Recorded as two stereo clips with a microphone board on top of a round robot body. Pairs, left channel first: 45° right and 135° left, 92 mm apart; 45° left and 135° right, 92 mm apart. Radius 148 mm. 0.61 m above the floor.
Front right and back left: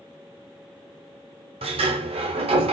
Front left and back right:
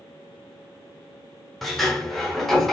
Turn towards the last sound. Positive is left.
turn(degrees=135)